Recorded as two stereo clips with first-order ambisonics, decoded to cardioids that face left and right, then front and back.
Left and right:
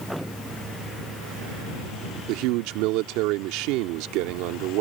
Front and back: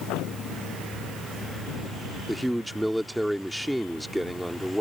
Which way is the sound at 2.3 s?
90° right.